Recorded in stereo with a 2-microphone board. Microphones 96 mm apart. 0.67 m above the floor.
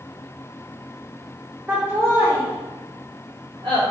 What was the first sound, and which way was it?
Laughter, 20° right (ahead or behind).